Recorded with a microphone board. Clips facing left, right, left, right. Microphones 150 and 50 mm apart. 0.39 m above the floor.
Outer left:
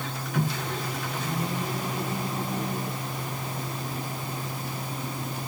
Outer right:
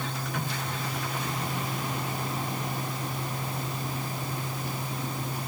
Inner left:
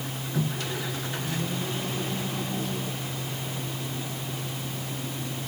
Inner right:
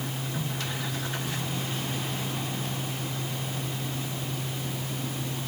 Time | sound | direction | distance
0.3 | a microwave | 85° left | ?